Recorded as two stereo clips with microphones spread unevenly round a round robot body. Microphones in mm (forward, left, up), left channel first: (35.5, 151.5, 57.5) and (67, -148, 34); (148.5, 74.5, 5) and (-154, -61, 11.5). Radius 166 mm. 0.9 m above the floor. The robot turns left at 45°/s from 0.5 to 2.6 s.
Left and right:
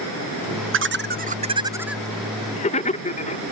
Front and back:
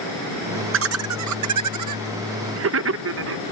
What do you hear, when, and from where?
0.7 s laughter: 110° right; by 3.4 s 165° left